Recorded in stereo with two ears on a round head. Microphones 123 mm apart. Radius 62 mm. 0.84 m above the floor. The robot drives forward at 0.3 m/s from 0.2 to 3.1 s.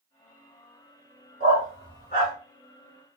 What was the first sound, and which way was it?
A dog barking, 50° left (ahead or behind).